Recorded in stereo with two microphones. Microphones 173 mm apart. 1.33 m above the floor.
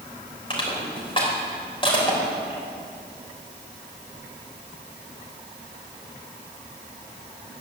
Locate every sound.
0.5 s crushing: 30° left (ahead or behind), 4 m